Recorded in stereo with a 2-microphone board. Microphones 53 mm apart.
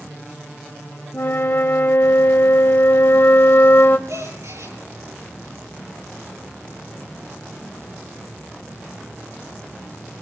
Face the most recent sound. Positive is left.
turn(degrees=-85)